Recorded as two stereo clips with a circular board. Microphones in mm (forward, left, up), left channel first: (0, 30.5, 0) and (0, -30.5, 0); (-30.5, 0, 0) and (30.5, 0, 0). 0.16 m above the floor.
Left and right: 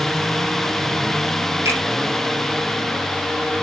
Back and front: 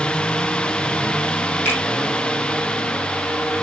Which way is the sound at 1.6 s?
125° right.